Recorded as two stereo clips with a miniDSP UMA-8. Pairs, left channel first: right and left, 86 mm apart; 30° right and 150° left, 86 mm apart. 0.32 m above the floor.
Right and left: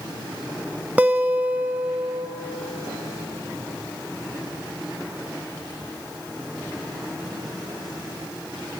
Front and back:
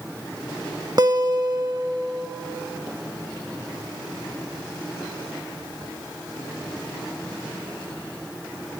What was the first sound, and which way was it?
A guitar, 155° left.